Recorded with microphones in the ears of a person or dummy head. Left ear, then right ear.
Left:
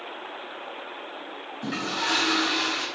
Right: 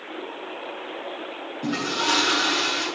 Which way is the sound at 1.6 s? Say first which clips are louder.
Right 3 dB; 60° left (ahead or behind).